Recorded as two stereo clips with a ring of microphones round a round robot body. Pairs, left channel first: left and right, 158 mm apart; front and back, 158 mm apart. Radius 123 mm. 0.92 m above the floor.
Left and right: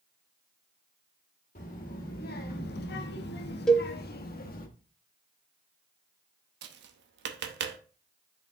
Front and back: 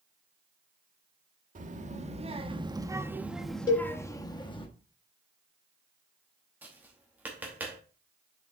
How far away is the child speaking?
About 1.5 m.